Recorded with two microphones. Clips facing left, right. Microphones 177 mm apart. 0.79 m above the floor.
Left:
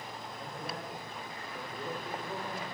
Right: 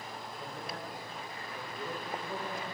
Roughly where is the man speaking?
Left.